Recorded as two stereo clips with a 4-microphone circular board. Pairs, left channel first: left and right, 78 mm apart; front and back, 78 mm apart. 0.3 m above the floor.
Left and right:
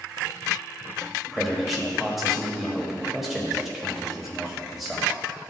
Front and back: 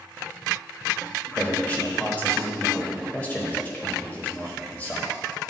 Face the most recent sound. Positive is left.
turn(degrees=-5)